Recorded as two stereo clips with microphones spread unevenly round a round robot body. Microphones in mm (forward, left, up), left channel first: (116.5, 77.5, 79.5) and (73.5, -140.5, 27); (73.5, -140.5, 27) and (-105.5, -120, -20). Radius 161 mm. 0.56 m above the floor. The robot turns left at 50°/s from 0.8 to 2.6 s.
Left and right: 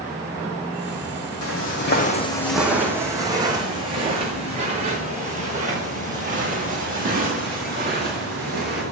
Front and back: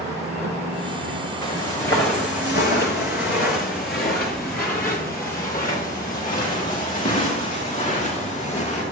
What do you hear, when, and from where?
0.0 s an insect: 160° left, 1.1 m; by 8.9 s 70° left, 1.1 m
1.4 s footsteps: 80° left, 1.9 m; by 8.8 s 55° right, 7 m